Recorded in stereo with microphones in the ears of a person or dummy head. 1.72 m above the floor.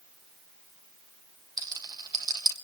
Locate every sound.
1.6 s a rattle: 20° right (ahead or behind), 1.5 m